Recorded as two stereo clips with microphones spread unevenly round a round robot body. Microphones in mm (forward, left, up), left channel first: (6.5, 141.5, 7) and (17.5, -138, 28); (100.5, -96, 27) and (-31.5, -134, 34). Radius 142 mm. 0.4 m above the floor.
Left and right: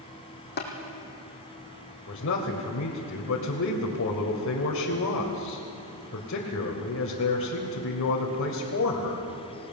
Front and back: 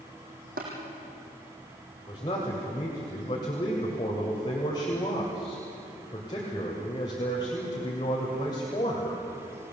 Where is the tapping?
150° left, 3.5 m.